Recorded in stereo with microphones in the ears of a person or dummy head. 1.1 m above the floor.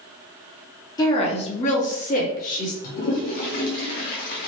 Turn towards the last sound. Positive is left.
turn(degrees=35)  # may be behind; listen again after turning